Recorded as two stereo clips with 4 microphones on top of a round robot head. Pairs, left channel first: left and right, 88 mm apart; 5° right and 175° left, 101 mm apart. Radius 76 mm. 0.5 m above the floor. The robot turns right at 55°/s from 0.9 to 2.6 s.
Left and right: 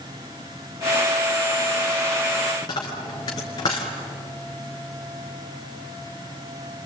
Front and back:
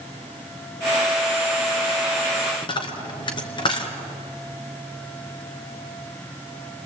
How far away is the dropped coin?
About 3 m.